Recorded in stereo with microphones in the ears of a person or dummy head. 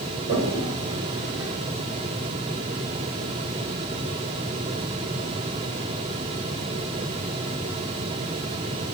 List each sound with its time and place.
0.3 s a toilet flushing: 80° right, 3 m